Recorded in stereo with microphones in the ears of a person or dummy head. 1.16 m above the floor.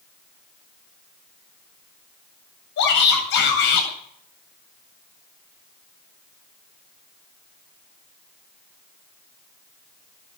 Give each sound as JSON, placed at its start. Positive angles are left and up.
{"t": 2.8, "sound": "a shout", "side_deg": 65, "distance_m": 8.0}